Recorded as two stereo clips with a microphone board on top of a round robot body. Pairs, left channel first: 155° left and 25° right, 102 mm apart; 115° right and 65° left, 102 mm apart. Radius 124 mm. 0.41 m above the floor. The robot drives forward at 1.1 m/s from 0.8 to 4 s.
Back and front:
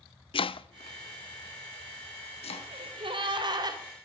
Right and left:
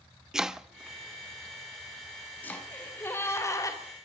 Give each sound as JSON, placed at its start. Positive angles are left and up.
{"t": 0.3, "sound": "chopping", "azimuth_deg": 150, "distance_m": 0.7}
{"t": 2.7, "sound": "a gasp", "azimuth_deg": -40, "distance_m": 3.0}